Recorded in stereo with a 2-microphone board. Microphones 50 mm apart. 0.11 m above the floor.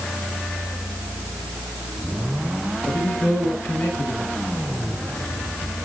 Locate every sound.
2.9 s a man speaking: 50° left (ahead or behind), 9.5 m